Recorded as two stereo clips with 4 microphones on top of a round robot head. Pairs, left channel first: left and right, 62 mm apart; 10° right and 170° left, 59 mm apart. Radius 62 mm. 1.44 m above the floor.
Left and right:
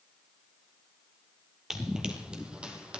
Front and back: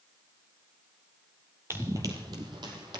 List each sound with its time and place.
1.7 s running footsteps: 160° right, 1.5 m